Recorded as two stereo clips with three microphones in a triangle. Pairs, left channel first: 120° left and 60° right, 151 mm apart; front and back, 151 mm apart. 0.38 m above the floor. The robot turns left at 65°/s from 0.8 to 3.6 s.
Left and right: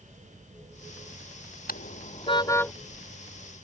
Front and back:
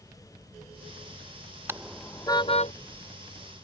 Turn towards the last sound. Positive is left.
turn(degrees=-20)